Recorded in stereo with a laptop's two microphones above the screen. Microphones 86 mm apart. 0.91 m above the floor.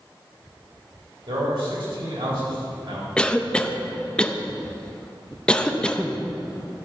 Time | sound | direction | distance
1.3 | a man speaking | 80° right | 4 m
3.2 | a cough | 10° left (ahead or behind) | 0.5 m